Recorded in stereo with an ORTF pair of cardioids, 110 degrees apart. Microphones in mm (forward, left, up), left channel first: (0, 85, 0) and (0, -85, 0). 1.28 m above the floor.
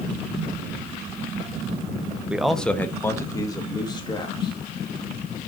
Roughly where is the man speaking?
Ahead.